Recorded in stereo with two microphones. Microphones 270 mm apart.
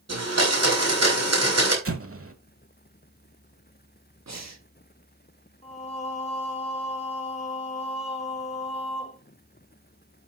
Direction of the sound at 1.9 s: 55° right (ahead or behind).